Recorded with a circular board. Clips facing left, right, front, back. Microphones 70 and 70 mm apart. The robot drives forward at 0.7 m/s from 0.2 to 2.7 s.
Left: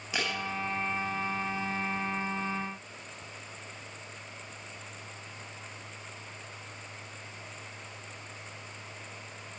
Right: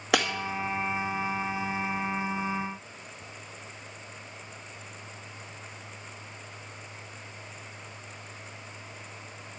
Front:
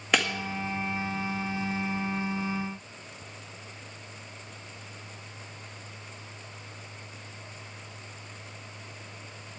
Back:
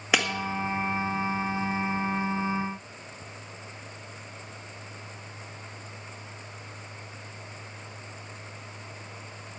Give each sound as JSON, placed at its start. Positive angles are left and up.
{"t": 0.1, "sound": "breaking glass", "azimuth_deg": -95, "distance_m": 1.9}